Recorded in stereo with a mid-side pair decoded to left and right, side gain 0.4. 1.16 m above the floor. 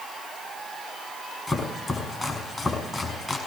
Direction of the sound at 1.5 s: 40° left.